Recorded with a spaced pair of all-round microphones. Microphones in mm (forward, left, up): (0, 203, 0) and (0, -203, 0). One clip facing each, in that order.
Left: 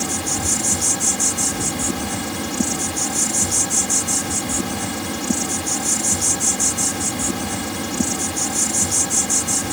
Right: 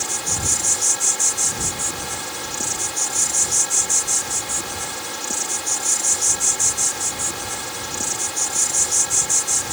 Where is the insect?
70° left (ahead or behind).